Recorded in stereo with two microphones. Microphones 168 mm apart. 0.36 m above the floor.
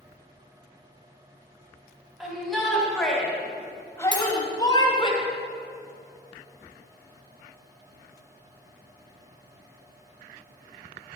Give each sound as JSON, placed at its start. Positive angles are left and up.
{"t": 2.2, "sound": "a shout", "side_deg": -5, "distance_m": 3.0}
{"t": 4.1, "sound": "cutlery clinking", "side_deg": -80, "distance_m": 3.0}